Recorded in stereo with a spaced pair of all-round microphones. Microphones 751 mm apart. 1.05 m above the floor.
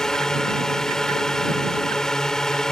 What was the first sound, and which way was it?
A drone, centre (ahead or behind).